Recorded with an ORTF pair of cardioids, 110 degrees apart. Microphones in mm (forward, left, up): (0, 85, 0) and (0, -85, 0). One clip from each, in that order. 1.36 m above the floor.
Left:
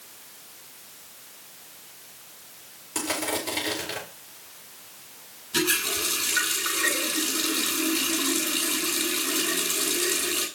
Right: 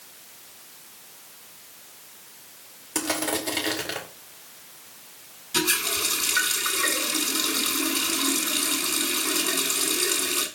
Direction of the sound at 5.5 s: 20° right.